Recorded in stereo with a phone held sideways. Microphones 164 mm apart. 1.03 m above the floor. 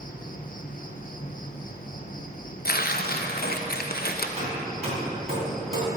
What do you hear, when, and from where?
0.0 s an insect: 55° left (ahead or behind), 0.9 m
2.6 s tearing paper: 65° left (ahead or behind), 0.8 m
4.4 s hammering: 40° right (ahead or behind), 3.5 m